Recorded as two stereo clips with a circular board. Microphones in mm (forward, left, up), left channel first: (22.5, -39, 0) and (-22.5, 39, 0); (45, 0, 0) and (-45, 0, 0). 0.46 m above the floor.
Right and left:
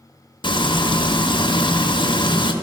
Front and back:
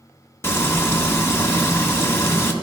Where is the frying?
60° right, 0.9 m.